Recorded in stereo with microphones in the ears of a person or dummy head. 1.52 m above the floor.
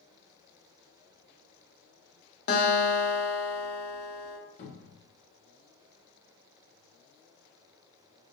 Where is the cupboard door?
50° left (ahead or behind), 2.0 m.